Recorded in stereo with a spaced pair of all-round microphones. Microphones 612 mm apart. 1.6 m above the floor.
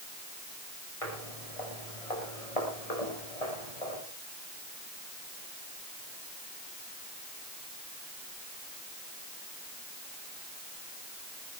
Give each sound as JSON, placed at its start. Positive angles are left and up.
{"t": 1.0, "sound": "footsteps", "side_deg": 60, "distance_m": 7.0}